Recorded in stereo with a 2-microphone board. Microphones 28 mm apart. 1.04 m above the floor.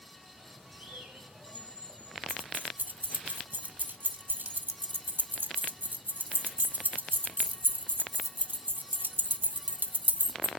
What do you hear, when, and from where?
0.4 s a bird: 50° right (ahead or behind), 4.5 m
2.3 s keys jangling: 80° right, 0.8 m